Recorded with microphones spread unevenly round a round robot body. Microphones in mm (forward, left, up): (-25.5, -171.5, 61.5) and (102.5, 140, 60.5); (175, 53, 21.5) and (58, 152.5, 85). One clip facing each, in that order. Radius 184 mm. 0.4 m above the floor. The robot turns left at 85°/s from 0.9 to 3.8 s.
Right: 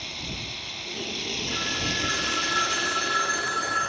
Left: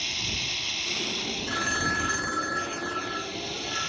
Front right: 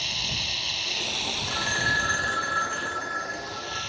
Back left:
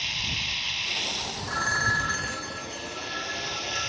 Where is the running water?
5° left; by 3.9 s 120° left.